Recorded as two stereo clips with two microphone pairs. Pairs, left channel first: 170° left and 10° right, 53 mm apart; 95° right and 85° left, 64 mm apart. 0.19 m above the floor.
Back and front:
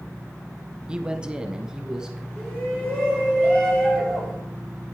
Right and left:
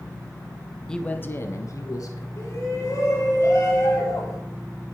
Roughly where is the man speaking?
Ahead right.